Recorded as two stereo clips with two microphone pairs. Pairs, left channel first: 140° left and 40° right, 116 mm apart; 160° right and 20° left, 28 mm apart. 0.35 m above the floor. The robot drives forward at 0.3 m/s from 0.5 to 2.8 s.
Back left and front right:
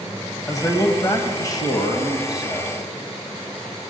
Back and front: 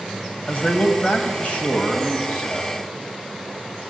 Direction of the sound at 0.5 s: 170° right.